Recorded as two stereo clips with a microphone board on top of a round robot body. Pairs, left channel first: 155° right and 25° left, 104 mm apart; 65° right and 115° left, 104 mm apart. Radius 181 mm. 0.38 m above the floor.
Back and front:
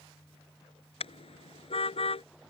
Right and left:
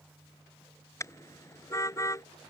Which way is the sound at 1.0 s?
130° right.